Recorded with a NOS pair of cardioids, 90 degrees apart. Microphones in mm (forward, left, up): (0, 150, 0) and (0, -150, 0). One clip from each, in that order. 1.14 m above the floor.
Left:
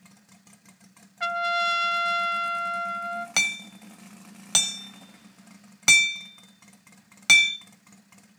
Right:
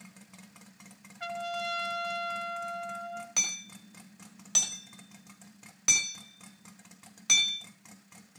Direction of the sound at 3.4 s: 60° left.